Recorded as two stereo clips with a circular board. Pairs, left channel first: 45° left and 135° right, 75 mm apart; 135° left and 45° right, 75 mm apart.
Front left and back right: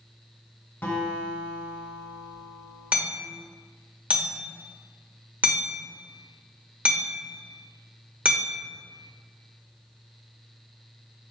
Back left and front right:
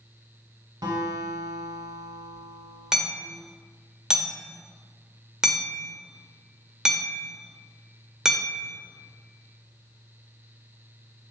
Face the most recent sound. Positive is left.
turn(degrees=-115)